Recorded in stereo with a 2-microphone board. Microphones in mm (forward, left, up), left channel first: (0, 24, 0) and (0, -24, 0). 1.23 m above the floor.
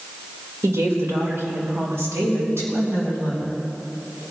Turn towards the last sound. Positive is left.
turn(degrees=-70)  # may be behind; listen again after turning